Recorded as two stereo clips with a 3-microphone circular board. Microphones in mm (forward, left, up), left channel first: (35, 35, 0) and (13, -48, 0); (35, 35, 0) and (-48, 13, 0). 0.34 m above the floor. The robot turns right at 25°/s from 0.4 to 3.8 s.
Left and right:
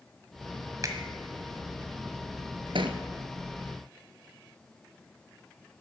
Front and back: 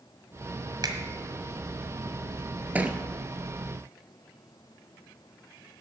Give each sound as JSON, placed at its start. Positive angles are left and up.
{"t": 0.8, "sound": "a finger snap", "azimuth_deg": -145, "distance_m": 1.4}
{"t": 2.8, "sound": "a thud", "azimuth_deg": -95, "distance_m": 1.0}